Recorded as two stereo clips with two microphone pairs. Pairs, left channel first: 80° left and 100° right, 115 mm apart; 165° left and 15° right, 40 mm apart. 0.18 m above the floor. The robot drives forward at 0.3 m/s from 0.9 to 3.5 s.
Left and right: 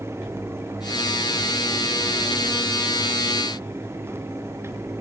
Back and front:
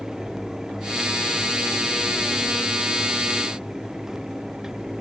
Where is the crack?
No crack in this recording.